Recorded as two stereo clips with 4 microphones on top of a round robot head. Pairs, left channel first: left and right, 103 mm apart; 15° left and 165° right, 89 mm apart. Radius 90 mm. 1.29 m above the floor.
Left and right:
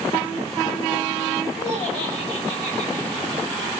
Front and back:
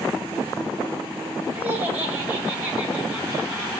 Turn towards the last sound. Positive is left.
turn(degrees=125)